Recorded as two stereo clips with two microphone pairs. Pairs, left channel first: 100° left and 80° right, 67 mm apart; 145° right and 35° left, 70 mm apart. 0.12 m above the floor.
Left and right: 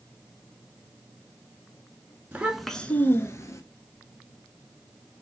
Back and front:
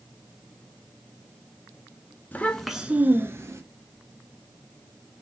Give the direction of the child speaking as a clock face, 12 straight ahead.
4 o'clock.